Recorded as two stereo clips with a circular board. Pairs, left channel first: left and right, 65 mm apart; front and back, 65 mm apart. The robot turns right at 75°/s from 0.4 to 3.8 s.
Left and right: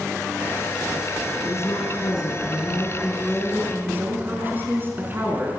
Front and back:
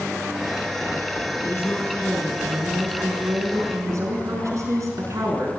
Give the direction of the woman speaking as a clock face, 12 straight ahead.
11 o'clock.